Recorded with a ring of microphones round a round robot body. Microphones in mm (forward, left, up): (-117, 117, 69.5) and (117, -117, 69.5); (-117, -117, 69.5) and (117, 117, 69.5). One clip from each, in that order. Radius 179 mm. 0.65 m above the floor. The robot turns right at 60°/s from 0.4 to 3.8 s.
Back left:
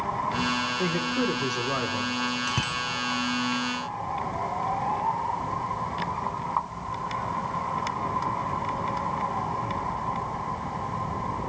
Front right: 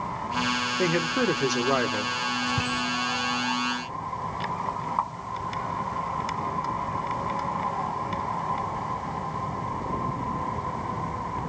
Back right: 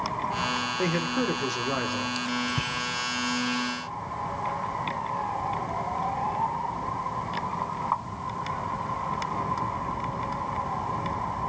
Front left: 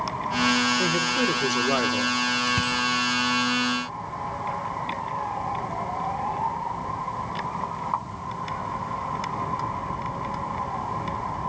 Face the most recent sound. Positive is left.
turn(degrees=165)